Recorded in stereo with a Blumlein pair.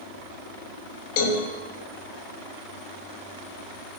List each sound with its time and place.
1.2 s a cowbell: 45° left, 1.1 m